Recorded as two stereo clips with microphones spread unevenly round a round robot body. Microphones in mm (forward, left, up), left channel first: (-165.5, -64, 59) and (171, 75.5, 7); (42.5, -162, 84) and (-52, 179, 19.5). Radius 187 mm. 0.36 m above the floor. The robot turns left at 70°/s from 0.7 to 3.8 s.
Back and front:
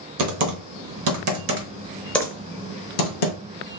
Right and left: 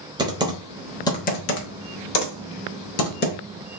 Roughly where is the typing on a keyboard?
Ahead left.